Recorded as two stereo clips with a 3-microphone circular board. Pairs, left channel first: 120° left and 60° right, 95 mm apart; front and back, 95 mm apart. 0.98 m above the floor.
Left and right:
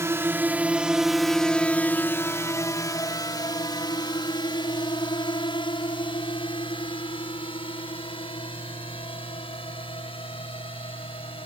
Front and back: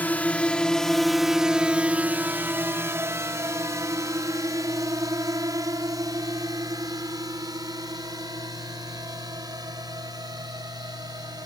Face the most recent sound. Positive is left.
turn(degrees=135)